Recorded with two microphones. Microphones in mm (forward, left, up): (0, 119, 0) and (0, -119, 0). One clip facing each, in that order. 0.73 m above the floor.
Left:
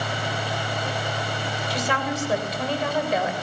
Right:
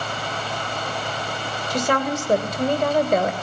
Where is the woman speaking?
45° right (ahead or behind), 2.5 m.